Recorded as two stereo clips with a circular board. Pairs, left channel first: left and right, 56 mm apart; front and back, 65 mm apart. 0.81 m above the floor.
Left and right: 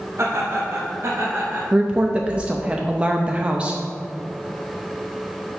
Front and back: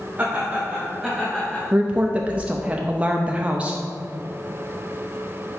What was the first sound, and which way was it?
Laughter, 115° right.